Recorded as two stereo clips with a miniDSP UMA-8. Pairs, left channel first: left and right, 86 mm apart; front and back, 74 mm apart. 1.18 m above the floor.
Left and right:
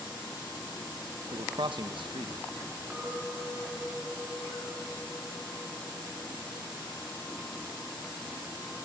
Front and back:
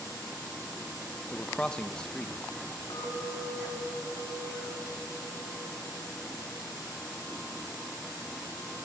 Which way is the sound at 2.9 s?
10° right.